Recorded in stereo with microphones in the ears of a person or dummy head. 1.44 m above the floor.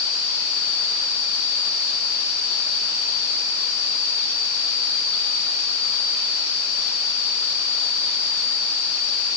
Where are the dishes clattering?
No dishes clattering in this recording.